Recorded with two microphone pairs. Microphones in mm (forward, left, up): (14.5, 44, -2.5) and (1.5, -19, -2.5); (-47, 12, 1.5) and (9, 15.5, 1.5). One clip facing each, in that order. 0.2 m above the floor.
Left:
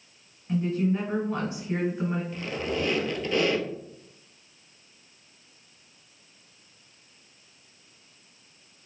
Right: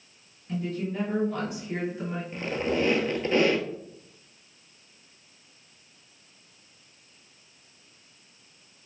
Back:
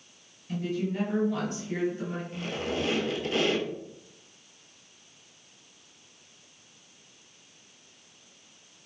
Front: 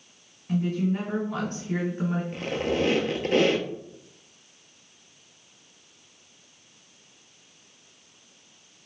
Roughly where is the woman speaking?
Ahead left.